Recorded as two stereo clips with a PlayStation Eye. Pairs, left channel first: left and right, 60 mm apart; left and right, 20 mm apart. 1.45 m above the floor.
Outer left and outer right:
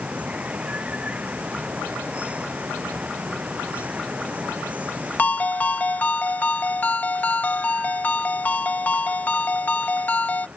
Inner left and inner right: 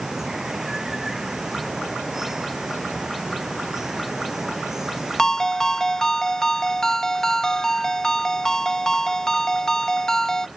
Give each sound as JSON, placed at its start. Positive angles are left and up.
{"t": 0.0, "sound": "running water", "side_deg": -20}
{"t": 5.2, "sound": "a ringtone", "side_deg": 25}